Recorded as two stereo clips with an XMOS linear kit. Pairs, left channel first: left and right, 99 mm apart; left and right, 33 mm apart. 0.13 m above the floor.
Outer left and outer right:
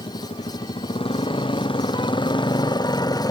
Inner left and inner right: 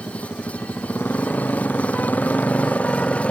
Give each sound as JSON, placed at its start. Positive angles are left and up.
{"t": 0.0, "sound": "a motorcycle", "side_deg": 75}